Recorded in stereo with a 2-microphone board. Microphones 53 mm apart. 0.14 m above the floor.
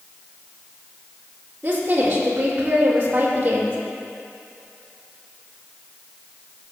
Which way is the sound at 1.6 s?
35° right (ahead or behind).